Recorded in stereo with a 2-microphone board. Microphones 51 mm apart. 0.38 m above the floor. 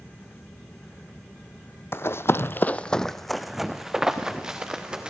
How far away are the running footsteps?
About 0.8 m.